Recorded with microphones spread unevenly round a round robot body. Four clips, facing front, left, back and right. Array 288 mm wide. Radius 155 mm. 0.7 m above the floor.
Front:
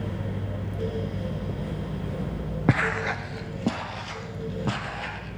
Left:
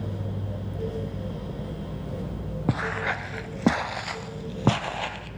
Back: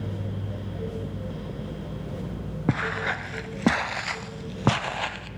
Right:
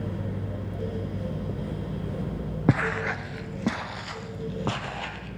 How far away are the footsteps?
About 0.6 m.